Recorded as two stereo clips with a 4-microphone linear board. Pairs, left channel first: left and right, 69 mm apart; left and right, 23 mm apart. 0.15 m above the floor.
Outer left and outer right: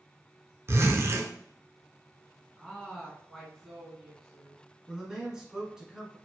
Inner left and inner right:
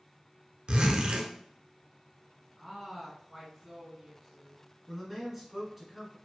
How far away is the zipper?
About 0.7 m.